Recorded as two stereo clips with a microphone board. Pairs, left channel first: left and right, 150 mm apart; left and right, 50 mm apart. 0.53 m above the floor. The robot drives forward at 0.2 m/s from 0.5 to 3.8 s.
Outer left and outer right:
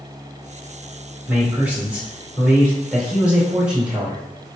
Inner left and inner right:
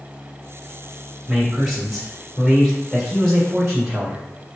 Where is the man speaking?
10° right (ahead or behind), 1.8 m.